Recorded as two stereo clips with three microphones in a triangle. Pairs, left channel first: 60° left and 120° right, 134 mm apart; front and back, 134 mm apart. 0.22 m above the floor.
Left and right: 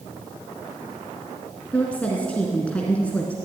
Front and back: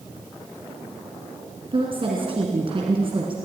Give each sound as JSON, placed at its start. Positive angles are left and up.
{"t": 1.7, "sound": "a woman speaking", "azimuth_deg": 140, "distance_m": 2.5}